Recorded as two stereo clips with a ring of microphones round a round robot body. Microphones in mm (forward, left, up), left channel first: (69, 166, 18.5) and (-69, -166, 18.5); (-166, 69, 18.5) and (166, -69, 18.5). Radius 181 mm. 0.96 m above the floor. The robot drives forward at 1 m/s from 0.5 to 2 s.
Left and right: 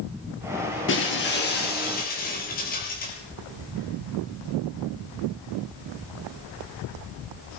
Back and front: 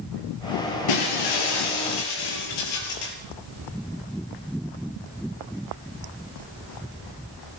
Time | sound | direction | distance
0.9 | breaking glass | 125° left | 5.5 m